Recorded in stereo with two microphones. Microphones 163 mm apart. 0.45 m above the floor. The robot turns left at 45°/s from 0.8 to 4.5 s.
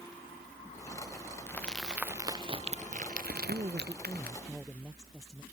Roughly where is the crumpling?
Centre.